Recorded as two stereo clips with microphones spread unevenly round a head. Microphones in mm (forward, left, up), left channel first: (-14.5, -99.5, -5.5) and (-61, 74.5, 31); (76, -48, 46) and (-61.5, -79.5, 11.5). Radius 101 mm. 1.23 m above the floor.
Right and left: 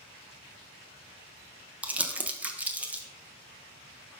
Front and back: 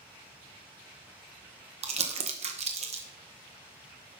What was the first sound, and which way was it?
Crumpling, 165° right.